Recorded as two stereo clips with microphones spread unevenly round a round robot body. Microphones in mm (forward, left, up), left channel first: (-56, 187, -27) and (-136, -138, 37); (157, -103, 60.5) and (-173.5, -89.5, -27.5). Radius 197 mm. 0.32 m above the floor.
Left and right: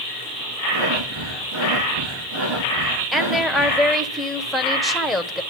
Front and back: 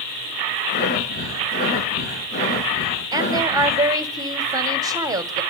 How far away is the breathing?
About 6.5 m.